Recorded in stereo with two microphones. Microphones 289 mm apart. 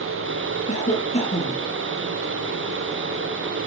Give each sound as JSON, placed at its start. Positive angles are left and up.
{"t": 0.7, "sound": "a cough", "side_deg": 30, "distance_m": 4.0}